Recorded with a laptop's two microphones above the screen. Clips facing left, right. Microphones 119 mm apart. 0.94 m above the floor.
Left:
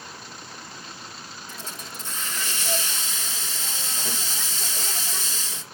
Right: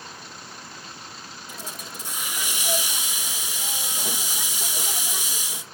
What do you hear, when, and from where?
1.5 s a hiss: 15° right (ahead or behind), 0.8 m